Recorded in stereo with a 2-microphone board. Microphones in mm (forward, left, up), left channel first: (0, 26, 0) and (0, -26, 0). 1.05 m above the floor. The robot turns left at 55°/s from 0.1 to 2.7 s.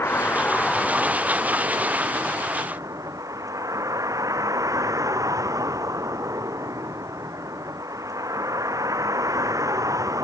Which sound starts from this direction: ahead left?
A vehicle, at 0.0 s.